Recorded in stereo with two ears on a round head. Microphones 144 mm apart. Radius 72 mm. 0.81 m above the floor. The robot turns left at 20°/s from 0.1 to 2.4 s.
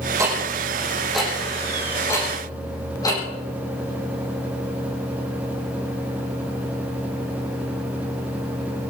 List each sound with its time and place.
0.2 s ticking: 20° right (ahead or behind), 6.5 m; by 3.2 s 25° left (ahead or behind), 6.5 m